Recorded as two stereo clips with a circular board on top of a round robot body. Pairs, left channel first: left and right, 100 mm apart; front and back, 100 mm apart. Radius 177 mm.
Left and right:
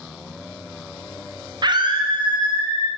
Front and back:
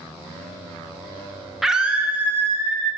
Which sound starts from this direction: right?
A scream, at 1.6 s.